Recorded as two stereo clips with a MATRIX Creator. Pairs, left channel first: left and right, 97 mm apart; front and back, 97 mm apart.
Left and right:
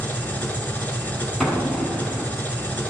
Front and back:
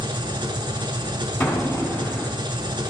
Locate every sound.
0.0 s an engine running: 160° left, 1.0 m
1.4 s an explosion: 5° left, 1.8 m